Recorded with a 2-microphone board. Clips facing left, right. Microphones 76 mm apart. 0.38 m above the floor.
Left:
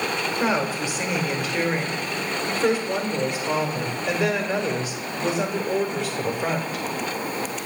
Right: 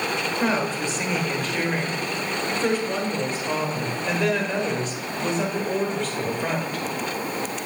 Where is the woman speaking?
10° left (ahead or behind), 1.2 m.